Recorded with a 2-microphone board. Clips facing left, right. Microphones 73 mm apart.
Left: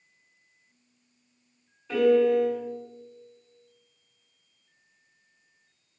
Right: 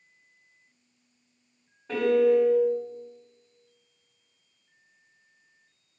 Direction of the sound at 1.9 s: 50° right (ahead or behind).